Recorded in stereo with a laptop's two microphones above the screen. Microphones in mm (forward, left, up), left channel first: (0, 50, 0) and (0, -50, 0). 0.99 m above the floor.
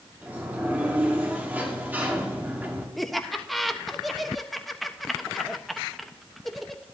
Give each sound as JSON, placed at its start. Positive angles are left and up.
{"t": 0.2, "sound": "a sliding door", "side_deg": -20, "distance_m": 1.2}
{"t": 3.0, "sound": "laughter", "side_deg": 0, "distance_m": 1.1}